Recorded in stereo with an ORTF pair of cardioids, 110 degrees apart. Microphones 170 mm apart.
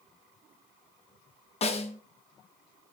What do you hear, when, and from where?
1.6 s a snare drum: 35° left, 1.2 m